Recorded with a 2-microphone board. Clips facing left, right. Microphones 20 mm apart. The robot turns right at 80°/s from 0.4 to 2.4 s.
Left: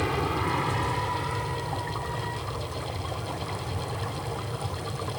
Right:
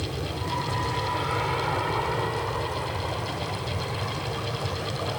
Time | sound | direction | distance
0.0 | an aircraft | 45° left (ahead or behind) | ?